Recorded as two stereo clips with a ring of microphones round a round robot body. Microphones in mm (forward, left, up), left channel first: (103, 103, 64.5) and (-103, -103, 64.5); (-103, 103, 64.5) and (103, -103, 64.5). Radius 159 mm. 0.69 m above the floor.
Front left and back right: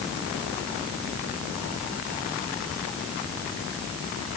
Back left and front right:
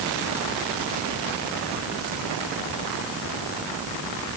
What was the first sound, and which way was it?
Only background noise.